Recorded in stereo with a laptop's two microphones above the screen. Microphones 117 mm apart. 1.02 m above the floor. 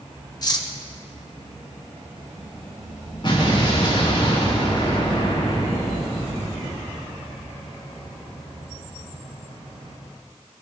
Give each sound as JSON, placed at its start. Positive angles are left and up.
{"t": 0.4, "sound": "cutlery clinking", "side_deg": 35, "distance_m": 0.6}
{"t": 3.2, "sound": "an explosion", "side_deg": 45, "distance_m": 2.5}